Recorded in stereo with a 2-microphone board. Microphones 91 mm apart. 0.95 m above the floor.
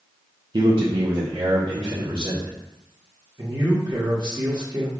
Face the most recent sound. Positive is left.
turn(degrees=-55)  # may be behind; listen again after turning